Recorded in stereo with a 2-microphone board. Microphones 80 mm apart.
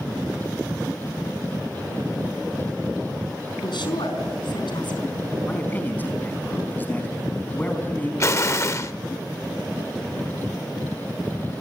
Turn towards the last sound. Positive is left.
turn(degrees=40)  # may be behind; listen again after turning